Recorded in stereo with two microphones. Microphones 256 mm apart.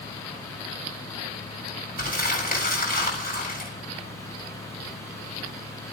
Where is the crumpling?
35° left (ahead or behind), 7.5 m.